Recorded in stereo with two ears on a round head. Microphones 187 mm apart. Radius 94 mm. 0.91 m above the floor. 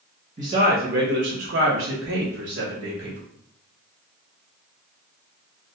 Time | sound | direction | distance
0.4 | a man speaking | 35° right (ahead or behind) | 0.8 m